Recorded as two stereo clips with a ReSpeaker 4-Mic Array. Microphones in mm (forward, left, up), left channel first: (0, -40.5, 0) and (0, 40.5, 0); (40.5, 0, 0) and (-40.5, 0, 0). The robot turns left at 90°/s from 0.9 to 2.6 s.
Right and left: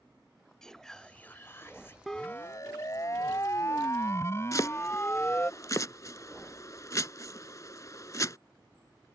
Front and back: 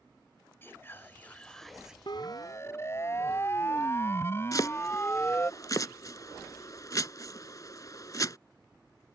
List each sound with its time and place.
0.6 s whispering: 15° right; by 2.0 s 110° right
2.1 s a siren: straight ahead; by 5.5 s 40° right
4.5 s chopping: 45° right